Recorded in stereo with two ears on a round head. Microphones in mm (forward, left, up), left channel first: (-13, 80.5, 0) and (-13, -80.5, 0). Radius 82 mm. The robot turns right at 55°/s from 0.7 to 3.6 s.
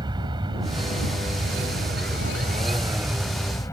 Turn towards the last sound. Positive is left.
turn(degrees=15)  # may be behind; listen again after turning